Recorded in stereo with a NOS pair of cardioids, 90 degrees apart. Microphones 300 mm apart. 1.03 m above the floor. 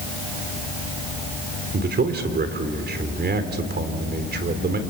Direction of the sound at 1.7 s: 35° right.